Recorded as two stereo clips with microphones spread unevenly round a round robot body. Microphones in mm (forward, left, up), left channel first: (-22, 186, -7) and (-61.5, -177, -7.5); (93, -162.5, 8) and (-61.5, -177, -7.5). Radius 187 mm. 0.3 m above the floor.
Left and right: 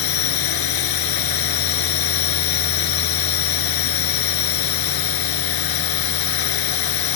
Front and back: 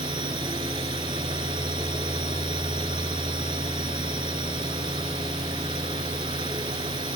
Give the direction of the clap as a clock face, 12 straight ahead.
No clap in this recording.